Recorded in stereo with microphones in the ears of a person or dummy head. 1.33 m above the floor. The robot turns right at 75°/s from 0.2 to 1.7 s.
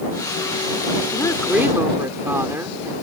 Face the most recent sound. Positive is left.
turn(degrees=-160)